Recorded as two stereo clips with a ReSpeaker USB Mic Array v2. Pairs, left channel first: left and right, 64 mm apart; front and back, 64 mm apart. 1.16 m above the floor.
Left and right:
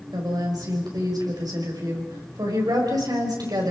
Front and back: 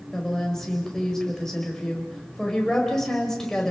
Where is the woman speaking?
85° right, 5.5 m.